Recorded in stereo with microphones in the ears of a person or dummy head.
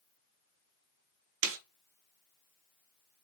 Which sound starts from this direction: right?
A snare drum, at 1.4 s.